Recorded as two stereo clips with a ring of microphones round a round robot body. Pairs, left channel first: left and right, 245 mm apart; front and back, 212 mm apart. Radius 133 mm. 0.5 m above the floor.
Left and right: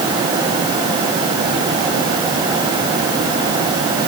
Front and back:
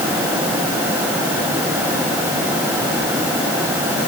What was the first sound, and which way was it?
Only background noise.